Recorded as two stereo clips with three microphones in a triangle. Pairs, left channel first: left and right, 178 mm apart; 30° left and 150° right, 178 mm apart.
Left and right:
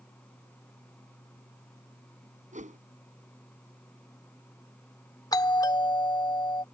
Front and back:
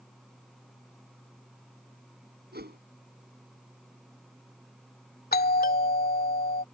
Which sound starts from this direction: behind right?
A whoosh, at 2.5 s.